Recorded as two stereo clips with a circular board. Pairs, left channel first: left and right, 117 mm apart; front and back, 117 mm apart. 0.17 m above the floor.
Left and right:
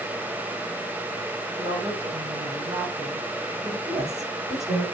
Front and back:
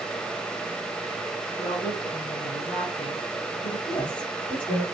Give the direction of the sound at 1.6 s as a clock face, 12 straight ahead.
2 o'clock.